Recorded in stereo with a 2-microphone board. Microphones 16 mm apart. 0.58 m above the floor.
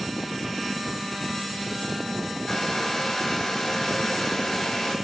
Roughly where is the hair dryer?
Left.